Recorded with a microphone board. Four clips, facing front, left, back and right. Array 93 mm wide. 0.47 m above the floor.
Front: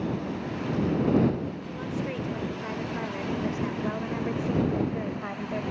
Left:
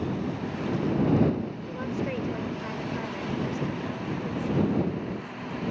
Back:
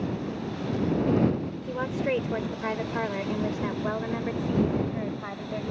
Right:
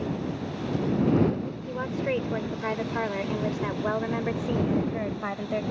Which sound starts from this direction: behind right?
A woman speaking, at 1.7 s.